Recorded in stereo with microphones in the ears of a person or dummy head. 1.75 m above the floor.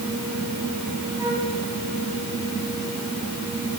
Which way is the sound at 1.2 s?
15° right (ahead or behind).